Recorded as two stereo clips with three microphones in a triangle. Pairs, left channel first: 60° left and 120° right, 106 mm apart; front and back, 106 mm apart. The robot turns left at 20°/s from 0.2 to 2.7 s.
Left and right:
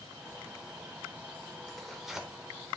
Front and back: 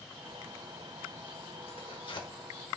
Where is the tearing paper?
25° right, 1.1 m; by 2.3 s 35° right, 1.1 m.